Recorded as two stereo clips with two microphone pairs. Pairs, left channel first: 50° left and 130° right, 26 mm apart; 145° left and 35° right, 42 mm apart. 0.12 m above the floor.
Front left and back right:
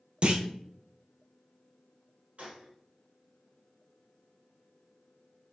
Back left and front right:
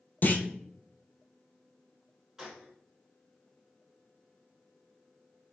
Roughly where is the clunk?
Behind.